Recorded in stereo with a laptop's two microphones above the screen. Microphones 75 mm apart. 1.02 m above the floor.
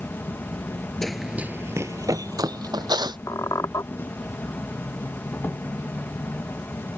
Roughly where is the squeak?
Left.